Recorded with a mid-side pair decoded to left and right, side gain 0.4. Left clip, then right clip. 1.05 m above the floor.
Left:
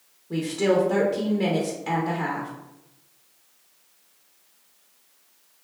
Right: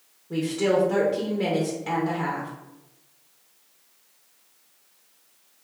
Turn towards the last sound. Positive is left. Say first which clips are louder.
# left 1 dB
turn(degrees=15)